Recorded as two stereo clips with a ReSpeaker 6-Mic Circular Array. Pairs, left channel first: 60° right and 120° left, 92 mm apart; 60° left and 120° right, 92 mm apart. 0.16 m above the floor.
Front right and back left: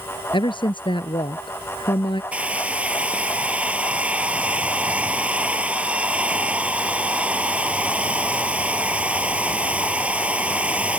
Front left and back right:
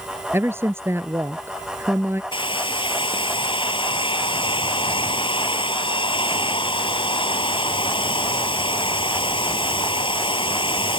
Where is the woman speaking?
60° right.